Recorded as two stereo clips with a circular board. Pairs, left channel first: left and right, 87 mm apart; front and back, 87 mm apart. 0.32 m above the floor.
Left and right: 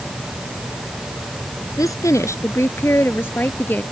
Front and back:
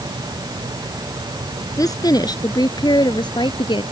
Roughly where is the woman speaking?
Ahead left.